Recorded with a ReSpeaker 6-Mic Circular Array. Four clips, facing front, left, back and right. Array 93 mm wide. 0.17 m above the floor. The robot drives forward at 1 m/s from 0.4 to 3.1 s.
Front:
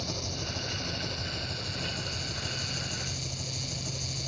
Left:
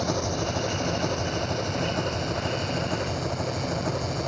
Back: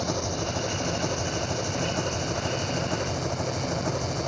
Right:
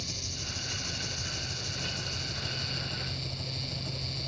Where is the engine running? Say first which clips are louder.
Left 17 dB, back 9 dB; 125° left; by 4.3 s 135° left.